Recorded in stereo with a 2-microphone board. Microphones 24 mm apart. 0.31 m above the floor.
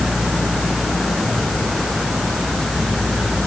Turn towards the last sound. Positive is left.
No sound to turn to.